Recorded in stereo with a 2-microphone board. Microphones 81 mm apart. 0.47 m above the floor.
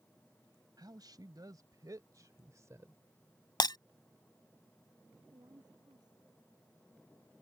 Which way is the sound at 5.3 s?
60° right (ahead or behind).